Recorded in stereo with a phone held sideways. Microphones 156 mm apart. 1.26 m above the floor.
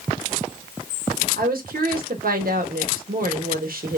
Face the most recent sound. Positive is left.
turn(degrees=-75)  # may be behind; listen again after turning